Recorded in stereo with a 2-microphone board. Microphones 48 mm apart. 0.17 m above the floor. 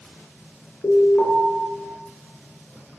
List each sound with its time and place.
0.8 s an alarm: 35° left (ahead or behind), 1.5 m